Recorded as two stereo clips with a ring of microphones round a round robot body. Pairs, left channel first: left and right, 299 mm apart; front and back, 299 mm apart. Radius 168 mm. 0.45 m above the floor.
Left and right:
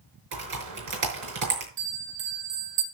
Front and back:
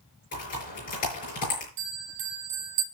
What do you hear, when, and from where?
0.3 s typing on a keyboard: 65° right, 5.5 m
1.8 s a bell: 145° right, 3.5 m